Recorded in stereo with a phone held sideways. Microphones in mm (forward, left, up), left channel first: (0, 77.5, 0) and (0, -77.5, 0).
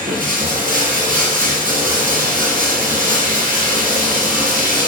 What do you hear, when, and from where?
0.0 s running water: 60° right (ahead or behind), 4.5 m